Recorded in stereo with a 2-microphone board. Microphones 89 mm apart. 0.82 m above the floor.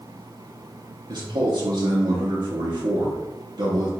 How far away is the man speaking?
About 0.7 m.